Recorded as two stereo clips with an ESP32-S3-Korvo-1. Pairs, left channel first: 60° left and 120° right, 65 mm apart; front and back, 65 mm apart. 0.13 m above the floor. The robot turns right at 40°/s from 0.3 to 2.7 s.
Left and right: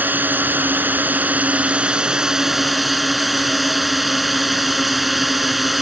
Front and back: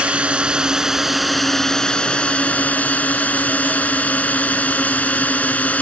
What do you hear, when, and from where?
0.0 s a drone: 130° right; by 5.8 s 35° right